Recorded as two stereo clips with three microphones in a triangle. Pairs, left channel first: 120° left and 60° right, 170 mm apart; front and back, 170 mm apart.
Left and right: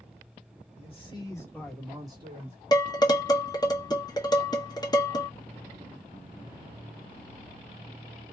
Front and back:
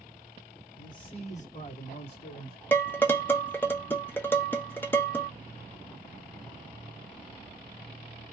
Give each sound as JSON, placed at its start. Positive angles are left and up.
{"t": 0.8, "sound": "a man speaking", "azimuth_deg": 70, "distance_m": 1.5}
{"t": 2.7, "sound": "dishes clattering", "azimuth_deg": 70, "distance_m": 0.6}